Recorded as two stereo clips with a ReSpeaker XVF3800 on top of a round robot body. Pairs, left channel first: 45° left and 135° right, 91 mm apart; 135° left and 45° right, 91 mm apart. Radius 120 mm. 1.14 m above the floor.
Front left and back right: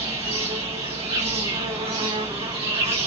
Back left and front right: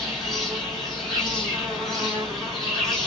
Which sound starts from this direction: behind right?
An insect, at 0.0 s.